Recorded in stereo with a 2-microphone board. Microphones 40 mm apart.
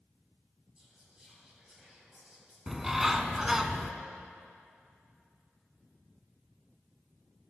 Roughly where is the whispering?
Centre.